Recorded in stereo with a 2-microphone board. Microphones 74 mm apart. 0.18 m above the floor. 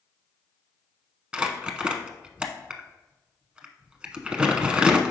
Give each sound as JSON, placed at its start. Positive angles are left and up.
{"t": 1.3, "sound": "crumpling", "side_deg": -15, "distance_m": 0.7}